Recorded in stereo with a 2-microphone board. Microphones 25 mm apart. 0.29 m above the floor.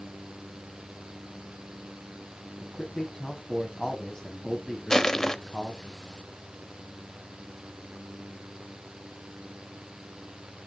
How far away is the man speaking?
About 2 m.